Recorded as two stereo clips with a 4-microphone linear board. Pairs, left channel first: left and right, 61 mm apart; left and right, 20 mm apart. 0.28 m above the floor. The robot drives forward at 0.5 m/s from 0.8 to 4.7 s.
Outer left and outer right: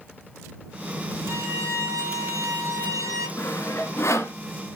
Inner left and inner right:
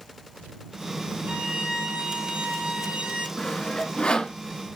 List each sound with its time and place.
1.3 s a violin: 60° right (ahead or behind), 5.5 m; by 3.3 s 70° right (ahead or behind), 5 m
3.4 s sawing: 55° left (ahead or behind), 2.5 m; by 4.4 s 50° left (ahead or behind), 3 m